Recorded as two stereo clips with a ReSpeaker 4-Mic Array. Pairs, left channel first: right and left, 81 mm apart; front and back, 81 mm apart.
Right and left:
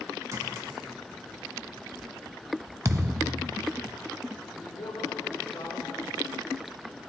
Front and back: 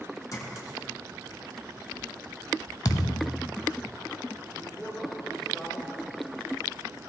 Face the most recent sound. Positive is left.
turn(degrees=-90)